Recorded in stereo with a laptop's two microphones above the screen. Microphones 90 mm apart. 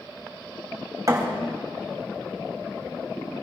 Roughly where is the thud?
Right.